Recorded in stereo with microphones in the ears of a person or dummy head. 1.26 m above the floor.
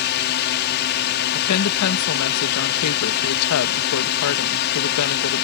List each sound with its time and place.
0.0 s a drone: 55° left (ahead or behind)
1.3 s a woman speaking: 85° left